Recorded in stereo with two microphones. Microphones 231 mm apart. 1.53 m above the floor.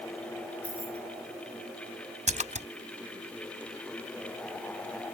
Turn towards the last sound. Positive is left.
turn(degrees=-30)  # may be behind; listen again after turning